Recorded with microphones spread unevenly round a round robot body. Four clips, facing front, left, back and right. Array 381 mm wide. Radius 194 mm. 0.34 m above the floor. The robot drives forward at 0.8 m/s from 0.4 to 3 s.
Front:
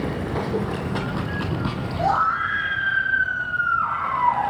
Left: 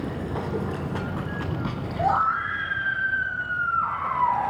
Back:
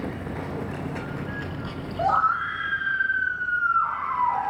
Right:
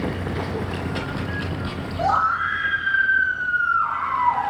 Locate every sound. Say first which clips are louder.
0.0 s running water: right 3 dB, front 6 dB; 15° left, 3.5 m; by 4.5 s 35° left, 1.7 m
2.0 s a scream: right 2 dB, front 1 dB; 160° right, 4.5 m; by 4.5 s 165° right, 5.5 m